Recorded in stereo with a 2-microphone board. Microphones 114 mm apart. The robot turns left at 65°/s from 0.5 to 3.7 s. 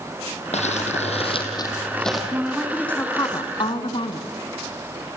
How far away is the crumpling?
About 4 m.